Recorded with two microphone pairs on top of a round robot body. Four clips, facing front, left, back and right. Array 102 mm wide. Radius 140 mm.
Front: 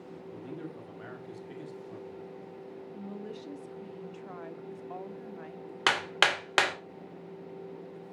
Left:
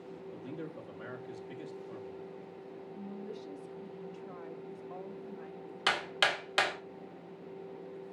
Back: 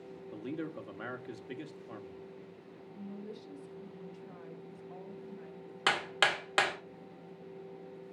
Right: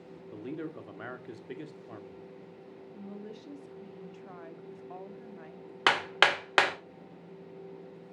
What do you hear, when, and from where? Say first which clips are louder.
0.3 s a man speaking: right 5 dB, back 3 dB; 125° right, 1.6 m
2.9 s a woman speaking: even, front 2 dB; 15° right, 1.9 m
5.9 s hammering: right 6 dB, front 3 dB; 75° right, 2.5 m